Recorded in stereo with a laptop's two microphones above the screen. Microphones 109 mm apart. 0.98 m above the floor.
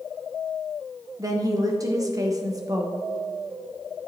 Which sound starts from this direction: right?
A woman speaking, at 1.2 s.